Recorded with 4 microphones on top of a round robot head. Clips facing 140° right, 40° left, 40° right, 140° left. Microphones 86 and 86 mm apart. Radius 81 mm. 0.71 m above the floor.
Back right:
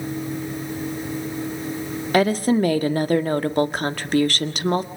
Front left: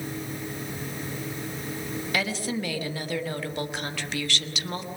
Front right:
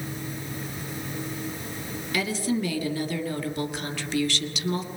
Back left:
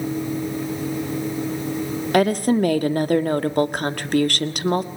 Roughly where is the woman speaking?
Behind.